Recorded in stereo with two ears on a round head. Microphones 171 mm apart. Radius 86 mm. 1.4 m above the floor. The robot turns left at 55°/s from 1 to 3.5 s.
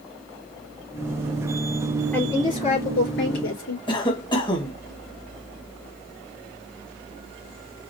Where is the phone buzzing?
I don't hear a phone buzzing.